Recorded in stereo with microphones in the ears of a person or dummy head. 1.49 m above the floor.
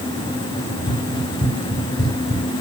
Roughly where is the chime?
I don't hear a chime.